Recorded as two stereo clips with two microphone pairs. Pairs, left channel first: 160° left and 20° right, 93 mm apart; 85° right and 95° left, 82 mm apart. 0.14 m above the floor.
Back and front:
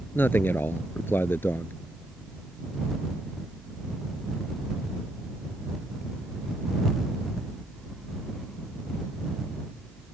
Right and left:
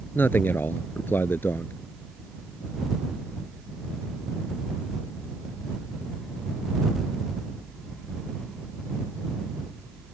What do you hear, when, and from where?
0.1 s a man speaking: 140° right